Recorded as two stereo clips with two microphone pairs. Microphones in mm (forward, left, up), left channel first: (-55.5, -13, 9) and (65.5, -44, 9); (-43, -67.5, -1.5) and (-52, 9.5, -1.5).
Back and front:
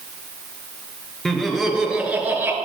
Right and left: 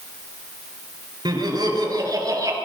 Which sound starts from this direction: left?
Laughter, at 1.2 s.